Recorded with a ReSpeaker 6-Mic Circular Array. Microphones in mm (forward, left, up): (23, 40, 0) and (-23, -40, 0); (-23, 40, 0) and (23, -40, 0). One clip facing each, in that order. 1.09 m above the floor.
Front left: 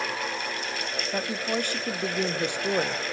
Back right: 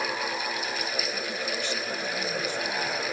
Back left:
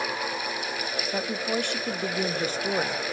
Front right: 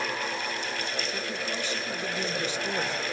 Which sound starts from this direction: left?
A woman speaking, at 1.1 s.